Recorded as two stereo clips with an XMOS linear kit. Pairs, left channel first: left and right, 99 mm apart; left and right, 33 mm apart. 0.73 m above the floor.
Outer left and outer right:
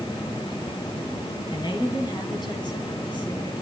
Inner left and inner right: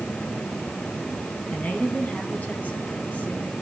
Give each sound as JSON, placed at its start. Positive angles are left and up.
{"t": 1.5, "sound": "a woman speaking", "side_deg": 50, "distance_m": 5.5}